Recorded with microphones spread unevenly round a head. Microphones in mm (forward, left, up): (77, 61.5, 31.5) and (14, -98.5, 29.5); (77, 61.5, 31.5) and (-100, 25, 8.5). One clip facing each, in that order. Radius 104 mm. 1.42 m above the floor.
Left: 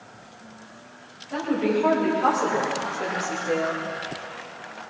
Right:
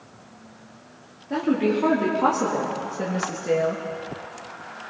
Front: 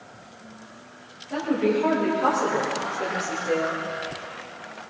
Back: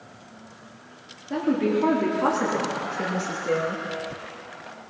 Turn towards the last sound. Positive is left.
turn(degrees=-130)